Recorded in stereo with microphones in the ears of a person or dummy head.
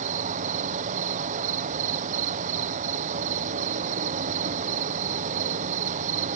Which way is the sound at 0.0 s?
45° right (ahead or behind).